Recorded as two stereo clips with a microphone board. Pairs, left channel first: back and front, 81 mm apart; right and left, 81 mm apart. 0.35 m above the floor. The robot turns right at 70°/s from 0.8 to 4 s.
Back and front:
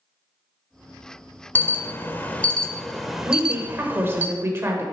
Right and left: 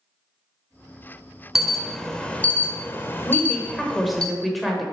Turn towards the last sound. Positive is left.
turn(degrees=0)